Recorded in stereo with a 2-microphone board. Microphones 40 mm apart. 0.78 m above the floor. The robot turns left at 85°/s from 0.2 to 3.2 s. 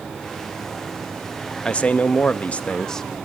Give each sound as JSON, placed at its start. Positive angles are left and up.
{"t": 1.6, "sound": "a man speaking", "azimuth_deg": 135, "distance_m": 0.6}